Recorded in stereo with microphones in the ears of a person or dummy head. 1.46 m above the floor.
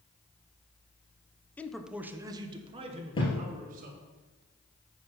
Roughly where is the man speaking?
Centre.